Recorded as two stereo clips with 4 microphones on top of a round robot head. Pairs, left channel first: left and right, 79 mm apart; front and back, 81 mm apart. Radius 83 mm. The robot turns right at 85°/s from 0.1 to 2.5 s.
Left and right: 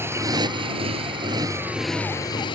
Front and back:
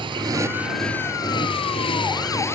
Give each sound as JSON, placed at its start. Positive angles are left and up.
{"t": 0.0, "sound": "a motorcycle", "azimuth_deg": -150}